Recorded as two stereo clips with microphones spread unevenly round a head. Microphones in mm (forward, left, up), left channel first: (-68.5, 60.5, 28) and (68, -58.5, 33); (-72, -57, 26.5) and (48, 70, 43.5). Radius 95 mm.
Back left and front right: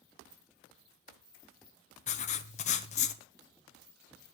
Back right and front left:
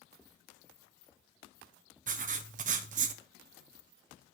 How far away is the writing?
About 0.8 m.